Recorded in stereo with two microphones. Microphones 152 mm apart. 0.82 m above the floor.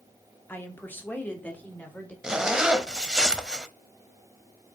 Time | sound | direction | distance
0.5 | a woman speaking | 15° left (ahead or behind) | 1.5 m
2.2 | a zipper | 5° right (ahead or behind) | 0.7 m